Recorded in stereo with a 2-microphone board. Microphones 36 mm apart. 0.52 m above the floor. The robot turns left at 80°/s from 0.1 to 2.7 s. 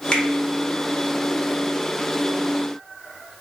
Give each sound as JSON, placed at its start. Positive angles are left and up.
{"t": 0.1, "sound": "a finger snap", "side_deg": 25, "distance_m": 1.2}